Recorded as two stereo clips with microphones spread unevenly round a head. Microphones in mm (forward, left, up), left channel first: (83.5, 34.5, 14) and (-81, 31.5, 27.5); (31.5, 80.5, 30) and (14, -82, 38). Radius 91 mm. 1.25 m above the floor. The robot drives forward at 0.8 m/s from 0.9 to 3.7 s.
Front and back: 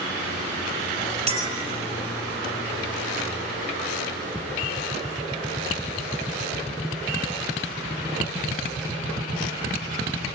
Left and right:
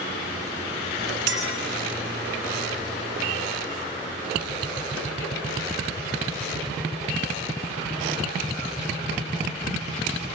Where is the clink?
120° right, 5.5 m; by 1.6 s 125° right, 5.5 m.